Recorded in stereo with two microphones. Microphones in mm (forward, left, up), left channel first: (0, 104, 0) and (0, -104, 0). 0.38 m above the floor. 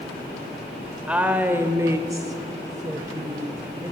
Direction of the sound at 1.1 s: 5° right (ahead or behind).